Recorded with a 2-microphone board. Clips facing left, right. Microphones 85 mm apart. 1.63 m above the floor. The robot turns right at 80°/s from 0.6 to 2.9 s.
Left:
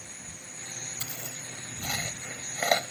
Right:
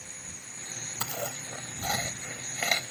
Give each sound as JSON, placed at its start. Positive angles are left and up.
{"t": 0.0, "sound": "an insect", "azimuth_deg": -160}
{"t": 1.0, "sound": "chewing", "side_deg": -75}